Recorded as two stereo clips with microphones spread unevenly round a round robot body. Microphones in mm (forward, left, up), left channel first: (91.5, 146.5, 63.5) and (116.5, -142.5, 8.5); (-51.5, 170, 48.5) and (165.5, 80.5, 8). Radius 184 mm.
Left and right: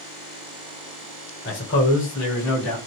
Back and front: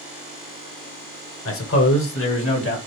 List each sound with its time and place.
1.4 s a man speaking: 150° left, 1.4 m; by 2.8 s 125° left, 2.5 m